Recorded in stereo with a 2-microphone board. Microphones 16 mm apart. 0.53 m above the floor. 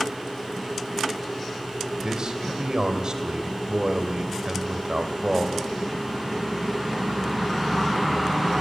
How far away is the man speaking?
About 3 m.